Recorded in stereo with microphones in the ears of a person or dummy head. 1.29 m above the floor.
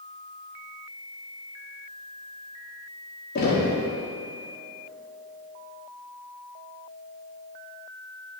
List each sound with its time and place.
3.4 s knocking: 50° left (ahead or behind), 1.2 m